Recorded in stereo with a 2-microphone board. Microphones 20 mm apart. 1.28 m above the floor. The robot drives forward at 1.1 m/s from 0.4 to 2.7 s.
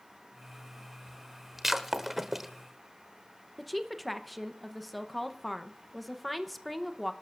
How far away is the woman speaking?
About 0.8 m.